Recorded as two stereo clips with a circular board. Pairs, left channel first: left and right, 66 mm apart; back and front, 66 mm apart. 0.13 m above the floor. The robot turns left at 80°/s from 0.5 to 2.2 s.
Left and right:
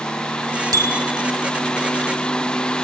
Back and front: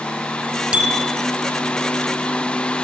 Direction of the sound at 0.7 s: 65° right.